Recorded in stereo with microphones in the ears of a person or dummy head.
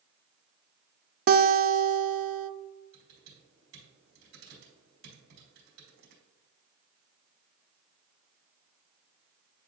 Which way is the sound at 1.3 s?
45° right (ahead or behind).